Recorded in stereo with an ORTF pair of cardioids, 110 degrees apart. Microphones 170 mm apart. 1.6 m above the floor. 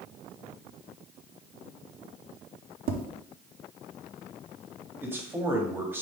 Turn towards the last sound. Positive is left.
turn(degrees=-15)